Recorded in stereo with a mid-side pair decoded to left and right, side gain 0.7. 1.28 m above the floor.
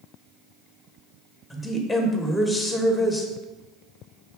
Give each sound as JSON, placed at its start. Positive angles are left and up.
{"t": 1.5, "sound": "a woman speaking", "azimuth_deg": 5, "distance_m": 1.2}